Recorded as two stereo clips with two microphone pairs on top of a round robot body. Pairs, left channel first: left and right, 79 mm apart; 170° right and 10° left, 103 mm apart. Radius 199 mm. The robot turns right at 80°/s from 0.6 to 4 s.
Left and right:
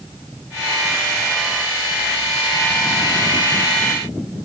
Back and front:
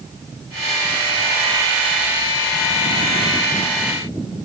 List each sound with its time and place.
Only background noise.